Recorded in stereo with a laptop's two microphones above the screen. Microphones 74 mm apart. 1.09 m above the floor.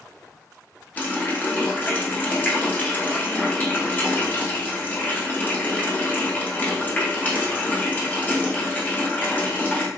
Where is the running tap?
20° left (ahead or behind), 0.8 m.